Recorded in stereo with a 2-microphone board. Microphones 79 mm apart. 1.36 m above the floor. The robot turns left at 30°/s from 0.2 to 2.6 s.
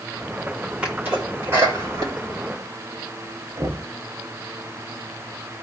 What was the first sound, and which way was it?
A sneeze, 15° right (ahead or behind).